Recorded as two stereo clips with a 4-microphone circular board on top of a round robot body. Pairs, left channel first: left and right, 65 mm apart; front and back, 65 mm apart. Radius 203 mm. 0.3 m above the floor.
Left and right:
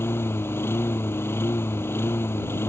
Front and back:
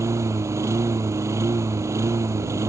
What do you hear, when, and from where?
0.0 s a lawn mower: 140° left